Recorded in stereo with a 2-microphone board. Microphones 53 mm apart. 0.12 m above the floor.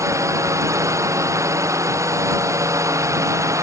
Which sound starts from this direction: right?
A drone, at 0.0 s.